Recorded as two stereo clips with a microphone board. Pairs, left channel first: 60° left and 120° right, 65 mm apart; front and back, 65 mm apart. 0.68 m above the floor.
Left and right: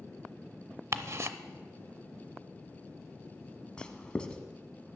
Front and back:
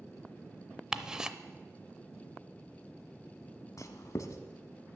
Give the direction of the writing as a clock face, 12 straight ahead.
12 o'clock.